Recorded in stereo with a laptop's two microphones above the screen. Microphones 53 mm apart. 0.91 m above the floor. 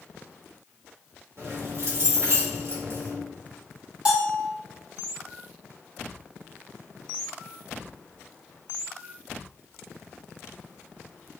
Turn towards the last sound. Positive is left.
turn(degrees=-20)  # may be behind; listen again after turning